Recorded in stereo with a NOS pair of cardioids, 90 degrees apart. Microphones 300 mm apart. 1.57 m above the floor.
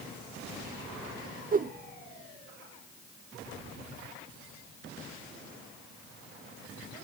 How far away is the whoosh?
About 0.6 m.